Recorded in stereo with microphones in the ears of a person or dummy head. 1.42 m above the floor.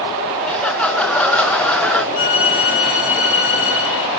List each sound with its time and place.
0.4 s laughter: 5° left (ahead or behind), 0.5 m
2.1 s a violin: 75° left (ahead or behind), 5.5 m